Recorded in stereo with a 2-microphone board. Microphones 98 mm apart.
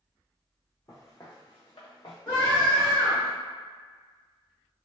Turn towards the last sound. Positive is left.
turn(degrees=20)  # may be behind; listen again after turning